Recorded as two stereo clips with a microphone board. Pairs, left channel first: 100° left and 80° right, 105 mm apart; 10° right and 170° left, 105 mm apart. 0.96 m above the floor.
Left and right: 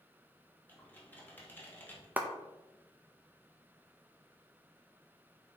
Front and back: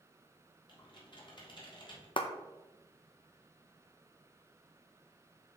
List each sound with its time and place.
0.7 s typing on a keyboard: 30° left, 1.8 m
2.2 s a clap: 10° right, 0.8 m